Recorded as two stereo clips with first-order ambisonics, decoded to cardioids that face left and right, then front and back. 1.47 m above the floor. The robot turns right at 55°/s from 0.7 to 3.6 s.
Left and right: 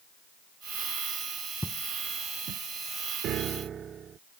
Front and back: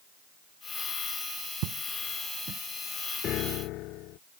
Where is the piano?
50° right; by 4.2 s 30° right.